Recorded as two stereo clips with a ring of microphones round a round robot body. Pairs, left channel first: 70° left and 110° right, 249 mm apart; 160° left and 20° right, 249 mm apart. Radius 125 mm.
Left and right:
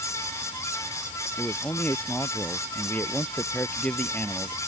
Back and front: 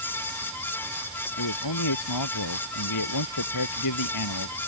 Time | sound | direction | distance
1.4 | a man speaking | 150° left | ?